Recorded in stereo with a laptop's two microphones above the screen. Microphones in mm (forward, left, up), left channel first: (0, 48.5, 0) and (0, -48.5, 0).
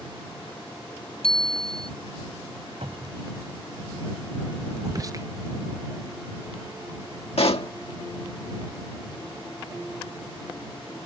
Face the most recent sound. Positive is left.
turn(degrees=75)  # may be behind; listen again after turning